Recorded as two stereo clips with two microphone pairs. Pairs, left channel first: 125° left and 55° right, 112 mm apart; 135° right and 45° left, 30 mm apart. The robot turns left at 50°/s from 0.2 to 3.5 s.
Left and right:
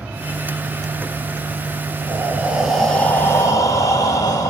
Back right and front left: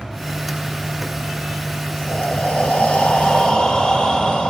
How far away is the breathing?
About 1.3 m.